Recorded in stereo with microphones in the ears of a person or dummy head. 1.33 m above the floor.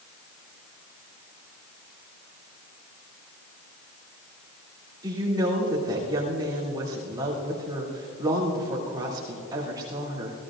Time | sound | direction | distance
5.0 | a woman speaking | 25° right (ahead or behind) | 2.5 m